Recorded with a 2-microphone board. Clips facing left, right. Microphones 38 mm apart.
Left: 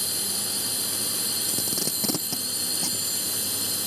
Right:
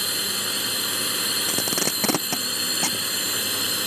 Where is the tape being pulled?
65° right (ahead or behind).